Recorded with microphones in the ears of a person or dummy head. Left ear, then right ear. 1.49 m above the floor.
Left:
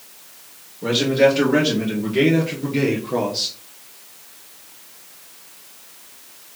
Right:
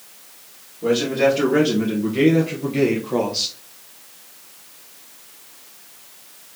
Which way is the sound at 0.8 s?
20° left (ahead or behind).